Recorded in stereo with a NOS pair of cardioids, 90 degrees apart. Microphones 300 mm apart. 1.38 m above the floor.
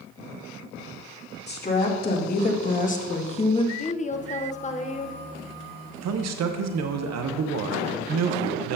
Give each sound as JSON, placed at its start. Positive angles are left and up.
{"t": 1.5, "sound": "a woman speaking", "azimuth_deg": 35, "distance_m": 2.5}
{"t": 3.8, "sound": "a woman speaking", "azimuth_deg": 25, "distance_m": 1.0}
{"t": 6.0, "sound": "a man speaking", "azimuth_deg": -60, "distance_m": 1.0}